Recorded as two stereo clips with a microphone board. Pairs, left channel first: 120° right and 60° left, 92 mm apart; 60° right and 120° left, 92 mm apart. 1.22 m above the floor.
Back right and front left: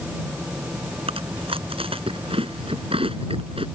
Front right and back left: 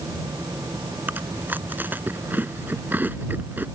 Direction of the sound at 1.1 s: 50° left.